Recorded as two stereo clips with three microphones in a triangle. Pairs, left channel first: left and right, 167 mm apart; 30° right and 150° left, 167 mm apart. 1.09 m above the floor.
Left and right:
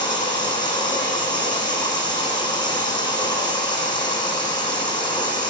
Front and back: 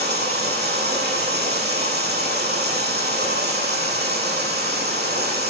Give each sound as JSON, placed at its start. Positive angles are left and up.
{"t": 0.0, "sound": "running water", "azimuth_deg": 155, "distance_m": 8.0}